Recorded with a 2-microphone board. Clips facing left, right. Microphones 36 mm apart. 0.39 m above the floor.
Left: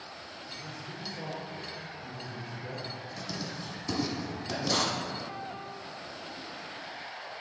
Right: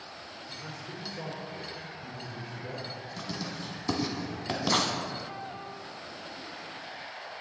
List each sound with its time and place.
0.5 s a man speaking: 30° right (ahead or behind), 1.0 m; by 2.9 s centre (ahead or behind), 1.6 m
3.2 s writing: 40° right (ahead or behind), 1.3 m